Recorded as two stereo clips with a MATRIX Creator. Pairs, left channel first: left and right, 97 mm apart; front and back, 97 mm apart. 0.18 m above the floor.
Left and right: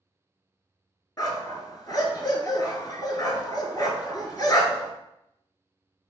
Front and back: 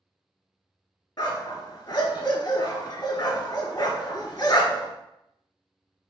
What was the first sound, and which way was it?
A dog barking, 45° left.